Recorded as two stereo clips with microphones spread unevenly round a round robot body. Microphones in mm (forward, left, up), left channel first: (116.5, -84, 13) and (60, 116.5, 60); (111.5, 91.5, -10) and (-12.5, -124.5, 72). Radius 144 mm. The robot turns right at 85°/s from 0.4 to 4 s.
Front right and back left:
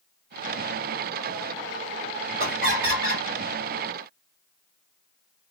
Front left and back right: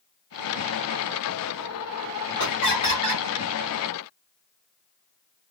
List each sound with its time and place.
2.4 s laughter: 90° left, 2 m; by 3.2 s 160° left, 2 m